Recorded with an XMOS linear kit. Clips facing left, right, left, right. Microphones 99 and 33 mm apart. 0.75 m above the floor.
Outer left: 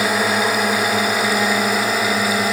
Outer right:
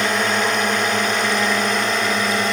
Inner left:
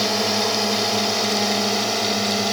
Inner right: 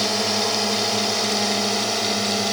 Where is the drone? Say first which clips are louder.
Outer left 1 dB, inner left 1 dB; 5° left (ahead or behind).